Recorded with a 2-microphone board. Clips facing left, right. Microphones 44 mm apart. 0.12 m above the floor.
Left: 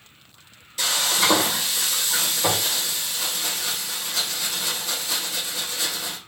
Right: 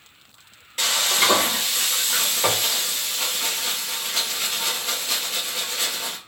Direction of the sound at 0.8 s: 45° right (ahead or behind).